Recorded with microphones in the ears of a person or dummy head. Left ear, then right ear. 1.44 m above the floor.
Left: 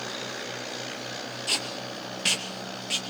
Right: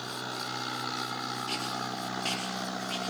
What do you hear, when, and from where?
1.5 s tape being pulled: 45° left (ahead or behind), 2.5 m